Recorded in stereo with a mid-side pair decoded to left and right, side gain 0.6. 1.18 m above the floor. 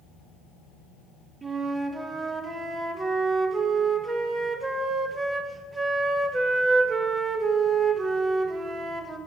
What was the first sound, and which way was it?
A flute, 20° right.